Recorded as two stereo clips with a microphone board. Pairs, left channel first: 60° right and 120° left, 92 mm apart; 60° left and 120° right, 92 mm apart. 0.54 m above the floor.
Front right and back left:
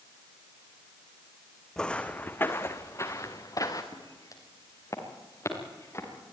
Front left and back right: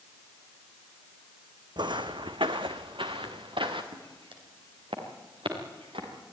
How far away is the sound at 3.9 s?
About 5 m.